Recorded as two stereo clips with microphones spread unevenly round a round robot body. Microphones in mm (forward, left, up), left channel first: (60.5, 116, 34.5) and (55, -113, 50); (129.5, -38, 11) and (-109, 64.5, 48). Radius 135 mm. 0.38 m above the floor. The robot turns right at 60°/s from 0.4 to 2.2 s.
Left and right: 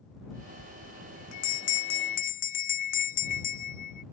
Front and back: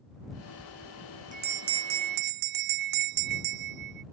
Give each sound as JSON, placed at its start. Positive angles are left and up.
{"t": 0.6, "sound": "a bell", "azimuth_deg": 50}